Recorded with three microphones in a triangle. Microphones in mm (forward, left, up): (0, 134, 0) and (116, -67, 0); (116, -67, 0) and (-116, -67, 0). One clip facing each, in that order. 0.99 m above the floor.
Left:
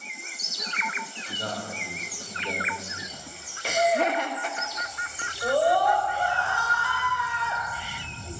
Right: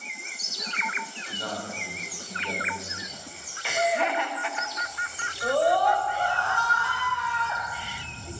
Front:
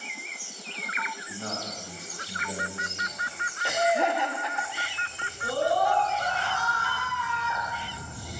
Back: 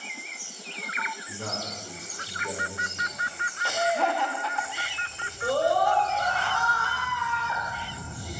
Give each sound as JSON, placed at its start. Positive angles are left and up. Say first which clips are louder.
{"t": 1.3, "sound": "a man speaking", "louder": "left 1 dB, even", "azimuth_deg": -175, "distance_m": 3.5}
{"t": 3.6, "sound": "laughter", "louder": "left 3 dB, front 1 dB", "azimuth_deg": 70, "distance_m": 0.9}
{"t": 5.4, "sound": "a scream", "louder": "even, back 2 dB", "azimuth_deg": -160, "distance_m": 3.5}